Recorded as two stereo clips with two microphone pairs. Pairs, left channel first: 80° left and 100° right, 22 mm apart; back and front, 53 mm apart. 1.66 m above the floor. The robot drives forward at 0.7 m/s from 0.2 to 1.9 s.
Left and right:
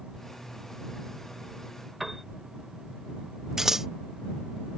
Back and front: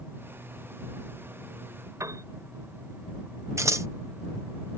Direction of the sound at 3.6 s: 25° right.